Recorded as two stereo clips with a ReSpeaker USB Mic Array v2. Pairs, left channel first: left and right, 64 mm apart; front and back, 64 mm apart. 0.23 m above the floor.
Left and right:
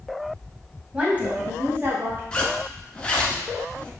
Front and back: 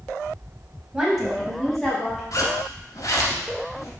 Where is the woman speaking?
125° right, 1.2 m; by 2.2 s 70° right, 1.6 m.